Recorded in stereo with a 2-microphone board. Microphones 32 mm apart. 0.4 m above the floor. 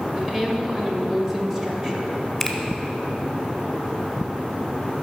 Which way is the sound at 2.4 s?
5° left (ahead or behind).